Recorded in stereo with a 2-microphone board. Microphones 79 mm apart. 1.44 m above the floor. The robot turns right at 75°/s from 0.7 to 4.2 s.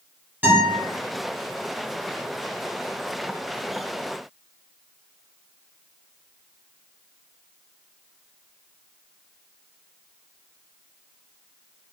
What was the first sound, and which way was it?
A guitar, 20° right (ahead or behind).